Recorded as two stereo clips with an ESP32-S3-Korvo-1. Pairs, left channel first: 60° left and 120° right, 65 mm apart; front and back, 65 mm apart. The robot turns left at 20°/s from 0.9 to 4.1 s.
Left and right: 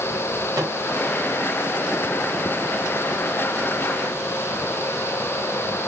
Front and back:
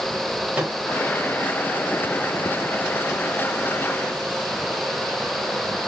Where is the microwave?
110° right, 2 m.